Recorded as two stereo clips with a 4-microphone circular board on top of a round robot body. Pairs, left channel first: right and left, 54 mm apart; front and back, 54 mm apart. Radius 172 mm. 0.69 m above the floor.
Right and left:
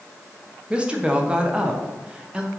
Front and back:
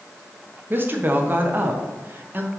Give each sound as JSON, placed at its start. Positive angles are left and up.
{"t": 0.7, "sound": "a woman speaking", "azimuth_deg": 150, "distance_m": 1.3}